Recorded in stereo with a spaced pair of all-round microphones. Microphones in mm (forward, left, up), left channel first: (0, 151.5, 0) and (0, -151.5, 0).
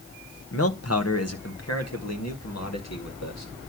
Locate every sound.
0.5 s a man speaking: 50° left (ahead or behind), 0.9 m; by 3.5 s 60° left (ahead or behind), 2.5 m